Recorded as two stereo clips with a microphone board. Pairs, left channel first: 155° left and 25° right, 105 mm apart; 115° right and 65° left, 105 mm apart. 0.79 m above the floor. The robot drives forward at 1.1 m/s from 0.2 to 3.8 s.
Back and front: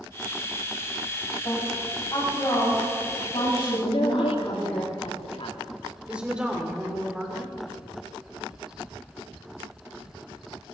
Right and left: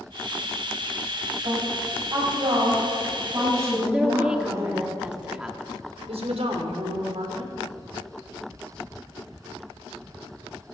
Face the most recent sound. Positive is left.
turn(degrees=60)